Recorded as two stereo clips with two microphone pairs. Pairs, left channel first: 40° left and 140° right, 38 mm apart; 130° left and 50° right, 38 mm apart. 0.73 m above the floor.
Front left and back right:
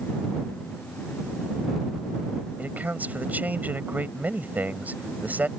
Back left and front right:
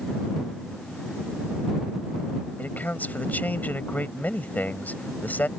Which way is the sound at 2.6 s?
175° left.